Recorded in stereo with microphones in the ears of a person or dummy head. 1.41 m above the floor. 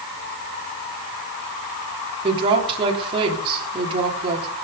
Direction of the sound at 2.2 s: 30° right (ahead or behind).